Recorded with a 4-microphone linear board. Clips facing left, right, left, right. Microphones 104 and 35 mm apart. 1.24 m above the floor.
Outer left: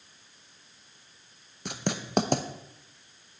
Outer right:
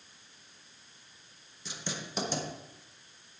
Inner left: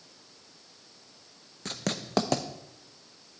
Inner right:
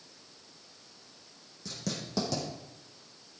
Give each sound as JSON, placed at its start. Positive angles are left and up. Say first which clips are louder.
{"t": 1.6, "sound": "writing", "louder": "outer left 8 dB, inner left 4 dB", "side_deg": 60, "distance_m": 0.7}